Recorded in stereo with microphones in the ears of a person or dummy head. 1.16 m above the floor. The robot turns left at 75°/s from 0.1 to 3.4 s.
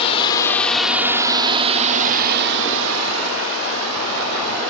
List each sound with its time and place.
0.0 s a drone: 35° left (ahead or behind); by 4.7 s 80° right